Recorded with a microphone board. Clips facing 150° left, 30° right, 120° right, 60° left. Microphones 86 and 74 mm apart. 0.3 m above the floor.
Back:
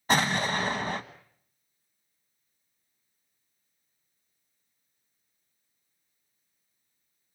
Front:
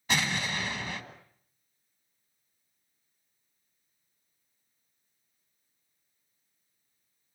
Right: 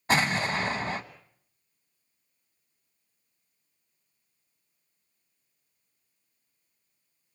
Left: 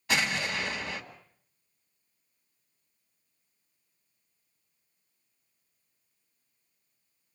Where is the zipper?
No zipper in this recording.